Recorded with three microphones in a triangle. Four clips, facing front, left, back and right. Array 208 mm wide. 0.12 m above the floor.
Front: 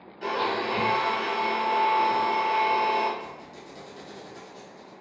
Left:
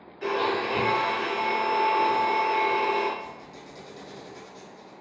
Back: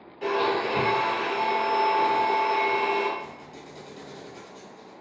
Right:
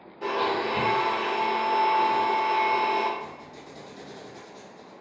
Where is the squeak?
115° right, 1.4 m.